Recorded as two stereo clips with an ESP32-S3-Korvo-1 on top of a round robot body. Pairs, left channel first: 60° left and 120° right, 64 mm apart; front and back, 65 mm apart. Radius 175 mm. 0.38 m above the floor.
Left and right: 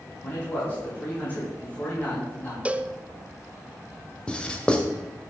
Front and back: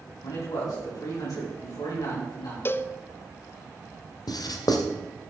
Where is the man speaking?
5° right, 4.5 m.